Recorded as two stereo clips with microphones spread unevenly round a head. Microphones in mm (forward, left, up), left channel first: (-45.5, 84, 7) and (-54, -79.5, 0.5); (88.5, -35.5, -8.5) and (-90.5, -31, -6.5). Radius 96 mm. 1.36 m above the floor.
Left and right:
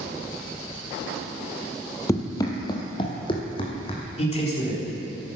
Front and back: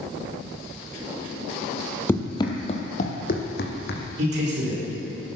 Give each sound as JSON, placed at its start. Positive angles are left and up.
{"t": 2.1, "sound": "running footsteps", "azimuth_deg": 60, "distance_m": 1.4}
{"t": 4.2, "sound": "a man speaking", "azimuth_deg": 135, "distance_m": 4.0}